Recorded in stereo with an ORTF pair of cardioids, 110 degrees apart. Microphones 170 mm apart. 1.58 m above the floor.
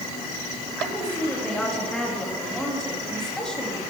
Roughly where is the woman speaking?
Ahead.